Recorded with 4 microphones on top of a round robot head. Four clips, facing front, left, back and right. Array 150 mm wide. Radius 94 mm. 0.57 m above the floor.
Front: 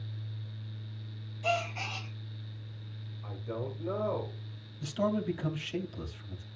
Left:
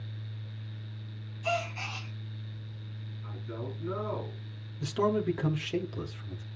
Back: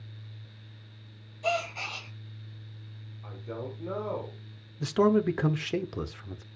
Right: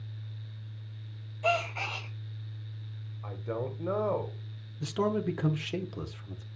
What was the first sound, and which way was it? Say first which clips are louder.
A gasp: right 3 dB, back 2 dB; 110° right.